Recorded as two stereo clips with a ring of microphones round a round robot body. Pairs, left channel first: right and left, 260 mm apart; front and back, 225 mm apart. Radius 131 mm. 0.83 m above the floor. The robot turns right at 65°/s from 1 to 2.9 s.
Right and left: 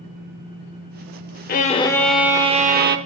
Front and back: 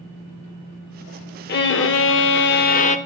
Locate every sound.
1.5 s a violin: 40° right, 0.6 m; by 3.0 s 50° left, 0.6 m